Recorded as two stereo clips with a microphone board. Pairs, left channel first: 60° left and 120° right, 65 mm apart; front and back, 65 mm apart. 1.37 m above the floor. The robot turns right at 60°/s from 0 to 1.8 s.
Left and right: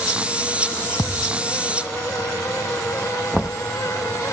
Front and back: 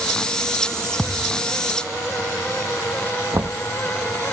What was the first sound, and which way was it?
A thud, 80° left.